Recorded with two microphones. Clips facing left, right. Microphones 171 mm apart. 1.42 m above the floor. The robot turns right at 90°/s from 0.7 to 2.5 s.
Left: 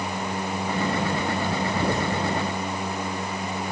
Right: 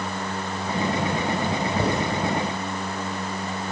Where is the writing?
70° right (ahead or behind), 7.5 m; by 2.0 s 90° right, 7.5 m.